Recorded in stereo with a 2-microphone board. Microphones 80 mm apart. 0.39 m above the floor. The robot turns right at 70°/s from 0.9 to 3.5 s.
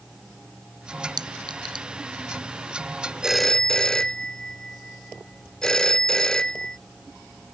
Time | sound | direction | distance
1.2 | a clink | 65° right (ahead or behind) | ?
3.2 | a phone ringing | 10° right (ahead or behind) | ?